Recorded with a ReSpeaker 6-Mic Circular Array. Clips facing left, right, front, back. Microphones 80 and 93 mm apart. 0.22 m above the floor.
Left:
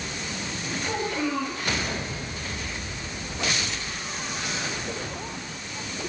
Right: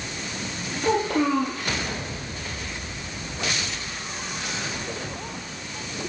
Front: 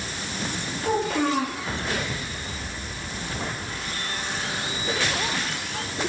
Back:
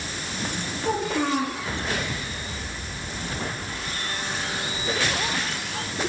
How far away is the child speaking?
About 4 m.